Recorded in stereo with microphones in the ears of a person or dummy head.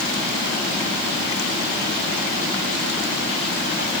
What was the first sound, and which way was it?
Only background noise.